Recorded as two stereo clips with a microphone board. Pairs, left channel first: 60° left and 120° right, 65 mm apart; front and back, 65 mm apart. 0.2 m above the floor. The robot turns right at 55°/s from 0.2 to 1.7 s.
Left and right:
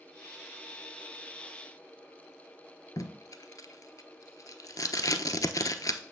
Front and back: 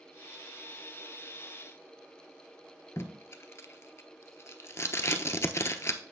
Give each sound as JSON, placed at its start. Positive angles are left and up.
{"t": 3.0, "sound": "tape being pulled", "azimuth_deg": 40, "distance_m": 0.8}